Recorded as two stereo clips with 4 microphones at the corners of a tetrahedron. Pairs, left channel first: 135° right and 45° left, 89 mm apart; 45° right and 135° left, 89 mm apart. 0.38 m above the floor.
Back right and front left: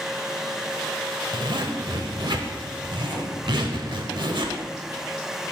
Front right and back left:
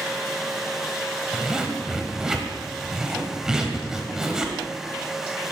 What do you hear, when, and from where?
1.3 s a zipper: 55° left, 1.1 m